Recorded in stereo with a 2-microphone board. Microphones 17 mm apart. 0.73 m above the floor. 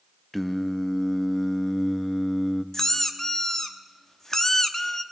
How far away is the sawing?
No sawing in this recording.